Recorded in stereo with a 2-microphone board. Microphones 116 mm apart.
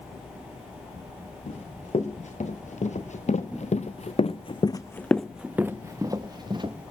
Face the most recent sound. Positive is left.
turn(degrees=-40)  # may be behind; listen again after turning